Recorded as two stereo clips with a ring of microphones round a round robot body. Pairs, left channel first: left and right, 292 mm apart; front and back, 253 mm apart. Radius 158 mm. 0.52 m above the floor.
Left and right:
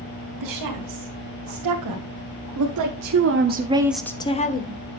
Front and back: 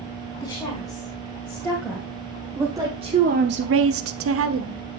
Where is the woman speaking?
80° right, 4.5 m; by 4.8 s 145° left, 1.8 m.